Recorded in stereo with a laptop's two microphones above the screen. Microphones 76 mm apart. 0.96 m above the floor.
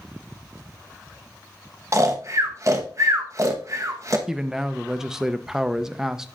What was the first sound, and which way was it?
Snoring, 45° right (ahead or behind).